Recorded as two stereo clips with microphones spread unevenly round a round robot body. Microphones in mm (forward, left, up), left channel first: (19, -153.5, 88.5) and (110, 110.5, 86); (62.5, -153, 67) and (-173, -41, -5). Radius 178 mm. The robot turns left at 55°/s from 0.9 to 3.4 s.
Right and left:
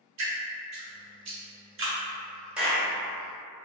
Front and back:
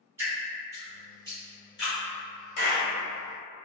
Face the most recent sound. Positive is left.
turn(degrees=-60)